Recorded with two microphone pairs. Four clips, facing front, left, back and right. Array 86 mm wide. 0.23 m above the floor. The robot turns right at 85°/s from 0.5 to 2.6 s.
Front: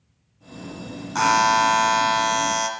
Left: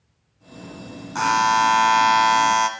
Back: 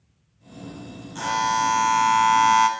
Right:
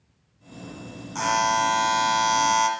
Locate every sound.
1.1 s a buzzer: 10° left, 1.4 m; by 2.7 s 135° left, 1.4 m